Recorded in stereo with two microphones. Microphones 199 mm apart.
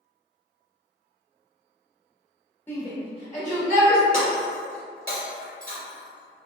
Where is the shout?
10° left (ahead or behind), 1.0 m; by 4.0 s 45° left (ahead or behind), 1.4 m.